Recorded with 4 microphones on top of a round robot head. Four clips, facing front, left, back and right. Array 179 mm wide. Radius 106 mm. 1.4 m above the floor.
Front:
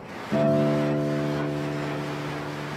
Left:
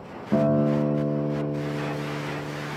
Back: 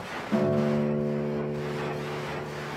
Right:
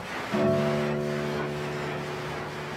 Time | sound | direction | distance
0.3 | a guitar | 75° left | 0.7 m